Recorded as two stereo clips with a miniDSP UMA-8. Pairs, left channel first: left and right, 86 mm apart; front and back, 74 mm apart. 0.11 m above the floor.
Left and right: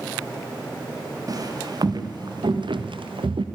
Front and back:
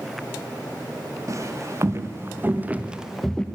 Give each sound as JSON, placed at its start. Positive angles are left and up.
{"t": 1.3, "sound": "footsteps", "azimuth_deg": -135, "distance_m": 3.0}